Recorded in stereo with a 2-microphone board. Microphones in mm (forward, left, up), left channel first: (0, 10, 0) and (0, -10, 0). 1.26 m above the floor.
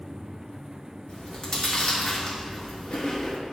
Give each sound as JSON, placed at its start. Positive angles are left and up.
{"t": 1.1, "sound": "chewing", "side_deg": 45, "distance_m": 1.7}